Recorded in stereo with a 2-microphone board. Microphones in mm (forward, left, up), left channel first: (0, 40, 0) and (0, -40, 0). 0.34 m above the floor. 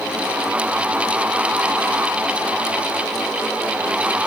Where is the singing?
I don't hear singing.